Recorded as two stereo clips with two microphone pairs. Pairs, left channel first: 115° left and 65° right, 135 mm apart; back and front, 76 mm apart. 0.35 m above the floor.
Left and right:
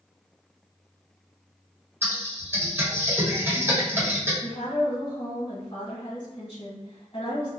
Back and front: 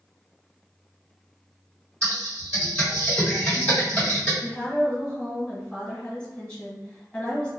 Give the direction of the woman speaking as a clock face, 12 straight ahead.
8 o'clock.